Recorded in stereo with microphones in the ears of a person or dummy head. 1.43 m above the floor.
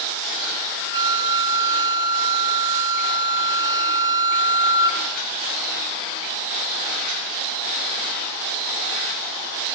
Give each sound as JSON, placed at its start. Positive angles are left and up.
{"t": 0.9, "sound": "a flute", "side_deg": -20, "distance_m": 0.8}